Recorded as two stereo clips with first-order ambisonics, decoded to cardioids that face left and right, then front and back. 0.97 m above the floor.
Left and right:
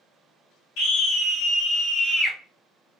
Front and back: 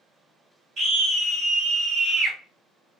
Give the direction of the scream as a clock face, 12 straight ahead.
8 o'clock.